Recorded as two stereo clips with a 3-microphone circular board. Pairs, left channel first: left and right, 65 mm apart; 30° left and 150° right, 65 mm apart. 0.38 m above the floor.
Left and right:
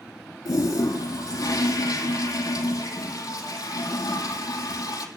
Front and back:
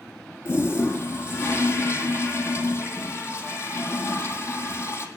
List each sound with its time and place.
0.5 s a toilet flushing: 75° left, 3.5 m